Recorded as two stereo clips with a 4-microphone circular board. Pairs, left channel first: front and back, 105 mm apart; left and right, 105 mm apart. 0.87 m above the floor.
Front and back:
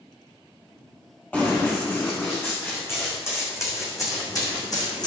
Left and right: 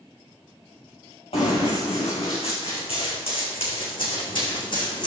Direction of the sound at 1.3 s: 75° left.